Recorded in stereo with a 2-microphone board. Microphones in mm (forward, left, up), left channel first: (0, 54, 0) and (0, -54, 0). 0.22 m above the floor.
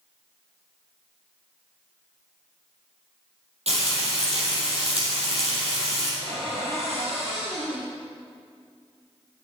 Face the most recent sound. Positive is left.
turn(degrees=-70)  # may be behind; listen again after turning